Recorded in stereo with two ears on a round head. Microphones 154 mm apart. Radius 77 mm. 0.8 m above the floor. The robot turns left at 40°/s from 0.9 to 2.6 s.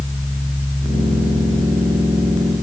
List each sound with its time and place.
Only background noise.